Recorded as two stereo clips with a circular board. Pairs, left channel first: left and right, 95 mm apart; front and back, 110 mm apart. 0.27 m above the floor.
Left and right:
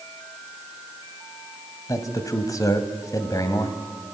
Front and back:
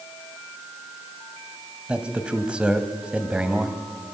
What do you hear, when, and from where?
1.9 s a man speaking: 105° left, 1.7 m